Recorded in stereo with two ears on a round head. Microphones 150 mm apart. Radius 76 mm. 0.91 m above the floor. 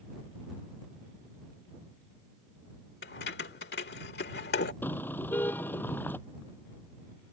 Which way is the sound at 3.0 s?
65° left (ahead or behind).